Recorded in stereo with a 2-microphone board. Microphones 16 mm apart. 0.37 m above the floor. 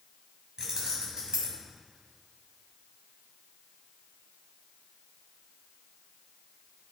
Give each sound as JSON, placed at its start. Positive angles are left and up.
{"t": 0.6, "sound": "keys jangling", "side_deg": -60, "distance_m": 1.9}